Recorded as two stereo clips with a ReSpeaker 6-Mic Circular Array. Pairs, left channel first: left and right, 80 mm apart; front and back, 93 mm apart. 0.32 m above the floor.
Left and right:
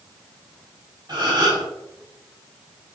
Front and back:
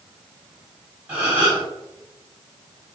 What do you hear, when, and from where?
1.1 s a gasp: 105° right, 1.6 m